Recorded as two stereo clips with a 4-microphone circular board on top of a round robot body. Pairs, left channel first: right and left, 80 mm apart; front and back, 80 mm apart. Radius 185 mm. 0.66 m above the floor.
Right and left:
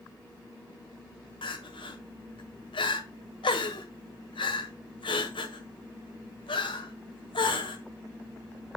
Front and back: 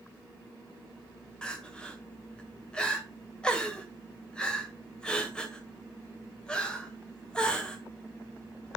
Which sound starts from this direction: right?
Crying, at 1.4 s.